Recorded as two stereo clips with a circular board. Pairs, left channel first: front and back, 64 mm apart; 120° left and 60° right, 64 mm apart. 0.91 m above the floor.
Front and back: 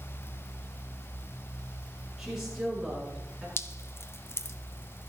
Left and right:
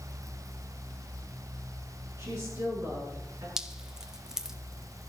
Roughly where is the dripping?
Ahead.